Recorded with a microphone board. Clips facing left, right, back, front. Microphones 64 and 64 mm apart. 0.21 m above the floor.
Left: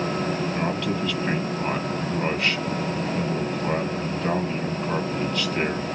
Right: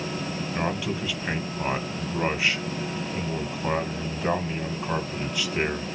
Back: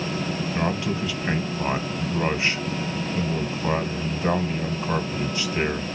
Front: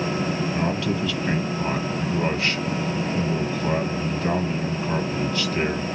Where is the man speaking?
150° right, 1.4 m.